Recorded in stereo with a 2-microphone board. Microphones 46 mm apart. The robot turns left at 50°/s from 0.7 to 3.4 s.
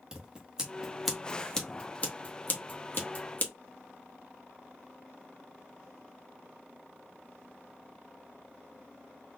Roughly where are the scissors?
Centre.